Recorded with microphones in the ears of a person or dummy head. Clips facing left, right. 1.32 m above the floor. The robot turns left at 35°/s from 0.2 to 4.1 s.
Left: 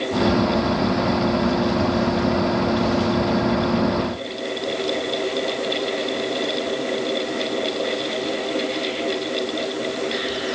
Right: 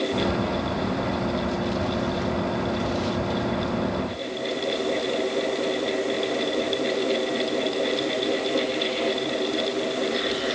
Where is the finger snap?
I don't hear a finger snap.